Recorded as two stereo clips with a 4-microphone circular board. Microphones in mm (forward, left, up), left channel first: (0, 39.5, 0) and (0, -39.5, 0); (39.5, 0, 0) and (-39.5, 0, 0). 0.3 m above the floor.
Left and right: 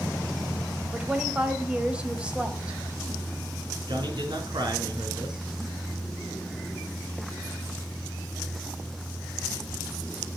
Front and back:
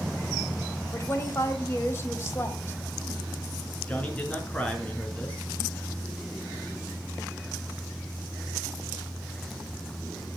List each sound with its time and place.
0.9 s a woman speaking: 25° right, 1.8 m
3.9 s a man speaking: 70° right, 4 m